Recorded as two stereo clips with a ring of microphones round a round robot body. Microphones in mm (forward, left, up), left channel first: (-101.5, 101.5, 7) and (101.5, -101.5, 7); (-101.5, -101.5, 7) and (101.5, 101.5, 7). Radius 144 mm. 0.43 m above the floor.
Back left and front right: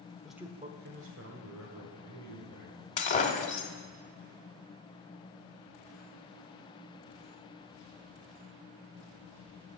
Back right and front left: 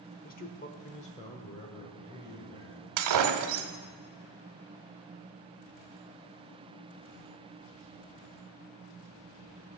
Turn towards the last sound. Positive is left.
turn(degrees=70)